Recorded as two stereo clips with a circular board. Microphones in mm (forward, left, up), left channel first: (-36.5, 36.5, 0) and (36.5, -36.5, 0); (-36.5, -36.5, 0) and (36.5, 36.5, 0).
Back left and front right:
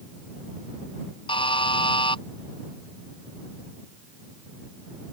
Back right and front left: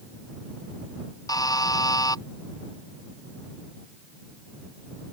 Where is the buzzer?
170° left.